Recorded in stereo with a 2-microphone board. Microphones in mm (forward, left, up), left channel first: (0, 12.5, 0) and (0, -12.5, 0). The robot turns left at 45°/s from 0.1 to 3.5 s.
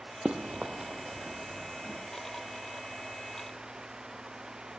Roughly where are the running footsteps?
Right.